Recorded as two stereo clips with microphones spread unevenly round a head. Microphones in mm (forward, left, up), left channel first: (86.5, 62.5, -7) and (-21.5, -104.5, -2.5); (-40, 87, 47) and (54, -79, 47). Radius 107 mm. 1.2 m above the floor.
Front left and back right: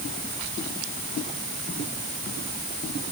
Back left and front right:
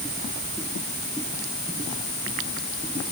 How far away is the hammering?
I don't hear hammering.